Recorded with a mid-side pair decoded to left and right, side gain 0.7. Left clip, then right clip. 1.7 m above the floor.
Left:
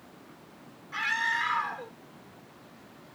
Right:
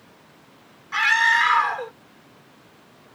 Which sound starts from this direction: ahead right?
A scream, at 0.9 s.